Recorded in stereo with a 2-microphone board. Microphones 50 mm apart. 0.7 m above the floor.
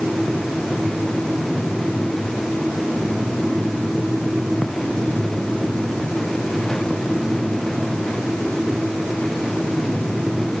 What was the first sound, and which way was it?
Only background noise.